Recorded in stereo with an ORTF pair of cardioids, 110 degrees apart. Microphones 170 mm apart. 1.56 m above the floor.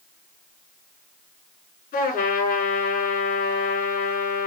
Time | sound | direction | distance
1.9 | a trumpet | 55° left | 9 m